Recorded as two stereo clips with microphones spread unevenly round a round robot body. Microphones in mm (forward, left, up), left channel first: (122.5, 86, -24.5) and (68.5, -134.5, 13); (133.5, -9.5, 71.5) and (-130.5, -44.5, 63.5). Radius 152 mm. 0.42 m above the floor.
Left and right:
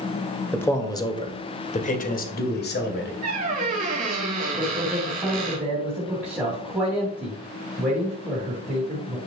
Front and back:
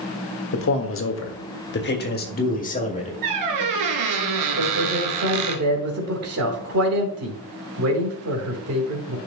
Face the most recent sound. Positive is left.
turn(degrees=165)